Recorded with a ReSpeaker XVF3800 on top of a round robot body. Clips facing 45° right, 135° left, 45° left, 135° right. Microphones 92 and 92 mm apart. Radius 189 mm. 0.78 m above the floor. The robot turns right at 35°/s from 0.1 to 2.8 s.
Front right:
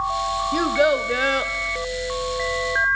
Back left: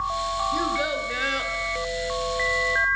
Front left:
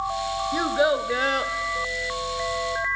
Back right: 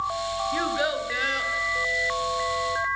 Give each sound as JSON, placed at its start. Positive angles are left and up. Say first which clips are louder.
{"t": 0.5, "sound": "a child speaking", "louder": "front right 6 dB, front left 7 dB", "azimuth_deg": -25, "distance_m": 0.8}